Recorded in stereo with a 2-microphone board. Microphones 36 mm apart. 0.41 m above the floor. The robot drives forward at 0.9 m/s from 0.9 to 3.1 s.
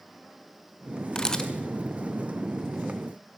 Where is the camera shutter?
20° left (ahead or behind), 1.2 m.